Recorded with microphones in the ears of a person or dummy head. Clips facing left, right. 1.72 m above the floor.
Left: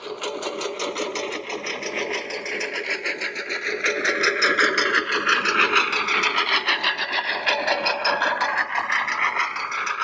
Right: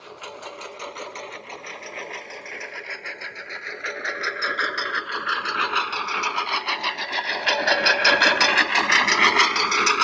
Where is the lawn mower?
55° left (ahead or behind); by 10.1 s 60° right (ahead or behind).